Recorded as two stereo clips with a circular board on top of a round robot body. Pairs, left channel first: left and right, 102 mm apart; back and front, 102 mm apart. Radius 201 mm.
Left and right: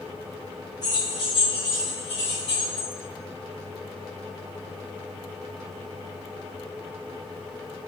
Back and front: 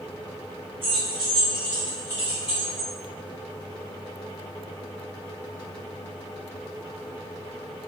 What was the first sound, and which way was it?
Keys jangling, 35° left.